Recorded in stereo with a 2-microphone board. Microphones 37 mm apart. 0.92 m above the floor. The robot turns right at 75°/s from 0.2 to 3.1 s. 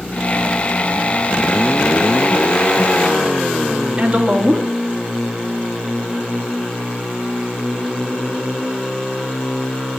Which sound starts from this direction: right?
A woman speaking, at 4.0 s.